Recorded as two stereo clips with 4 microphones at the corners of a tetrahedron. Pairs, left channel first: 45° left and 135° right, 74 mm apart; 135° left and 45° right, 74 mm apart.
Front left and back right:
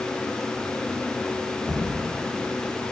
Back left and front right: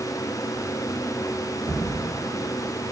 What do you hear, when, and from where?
1.7 s a thud: 55° right, 4 m